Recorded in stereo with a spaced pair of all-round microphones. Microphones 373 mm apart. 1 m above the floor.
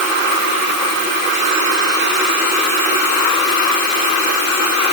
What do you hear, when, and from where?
Only background noise.